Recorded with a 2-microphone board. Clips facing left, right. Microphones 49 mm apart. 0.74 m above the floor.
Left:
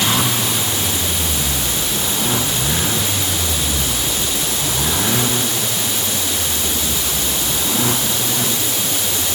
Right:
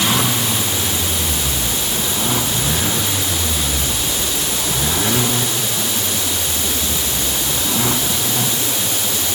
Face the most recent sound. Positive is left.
No sound to turn to.